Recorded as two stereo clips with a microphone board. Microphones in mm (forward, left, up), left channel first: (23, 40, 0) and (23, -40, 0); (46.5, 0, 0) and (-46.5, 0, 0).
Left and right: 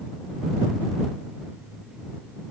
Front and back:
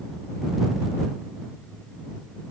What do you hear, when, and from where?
Only background noise.